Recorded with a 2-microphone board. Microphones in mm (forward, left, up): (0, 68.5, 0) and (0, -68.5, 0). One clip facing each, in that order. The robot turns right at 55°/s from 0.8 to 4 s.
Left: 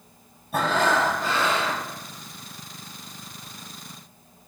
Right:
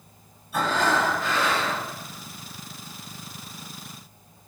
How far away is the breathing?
About 4 m.